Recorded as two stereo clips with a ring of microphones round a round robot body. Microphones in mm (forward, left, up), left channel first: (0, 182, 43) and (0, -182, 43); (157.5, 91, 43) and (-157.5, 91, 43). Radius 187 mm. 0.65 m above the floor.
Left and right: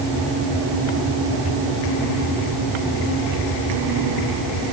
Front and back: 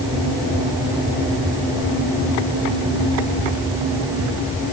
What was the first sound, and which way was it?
Only background noise.